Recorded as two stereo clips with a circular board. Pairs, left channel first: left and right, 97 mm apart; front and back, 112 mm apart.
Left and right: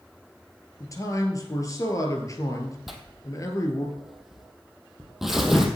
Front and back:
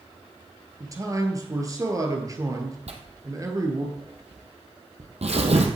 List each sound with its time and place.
0.8 s a man speaking: 130° left, 2 m
2.9 s tearing paper: 175° right, 1.7 m